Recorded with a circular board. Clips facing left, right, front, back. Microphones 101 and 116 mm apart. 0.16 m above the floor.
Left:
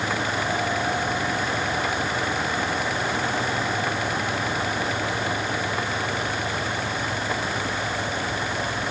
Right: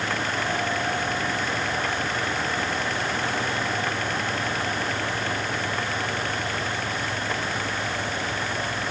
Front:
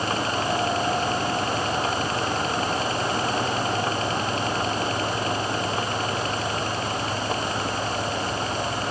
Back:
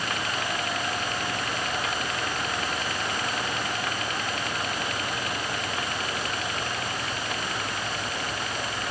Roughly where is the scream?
No scream in this recording.